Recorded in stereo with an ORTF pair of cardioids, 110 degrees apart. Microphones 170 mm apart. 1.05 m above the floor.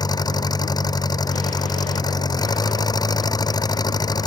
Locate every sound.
0.0 s an engine running: 20° left